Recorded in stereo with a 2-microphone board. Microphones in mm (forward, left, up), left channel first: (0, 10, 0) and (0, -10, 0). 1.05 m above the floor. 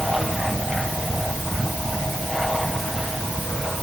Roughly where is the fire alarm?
No fire alarm in this recording.